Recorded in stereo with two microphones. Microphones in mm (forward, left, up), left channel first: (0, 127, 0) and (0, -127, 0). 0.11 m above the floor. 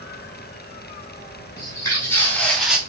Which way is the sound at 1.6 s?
15° left (ahead or behind).